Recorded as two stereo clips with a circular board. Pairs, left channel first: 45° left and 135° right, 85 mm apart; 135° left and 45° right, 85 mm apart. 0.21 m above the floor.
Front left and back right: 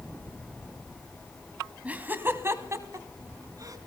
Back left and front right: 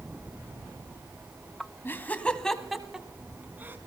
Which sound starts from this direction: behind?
Laughter, at 1.9 s.